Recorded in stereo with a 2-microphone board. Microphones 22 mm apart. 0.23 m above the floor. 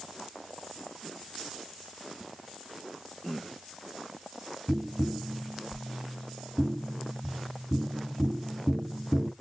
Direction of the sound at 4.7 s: 20° right (ahead or behind).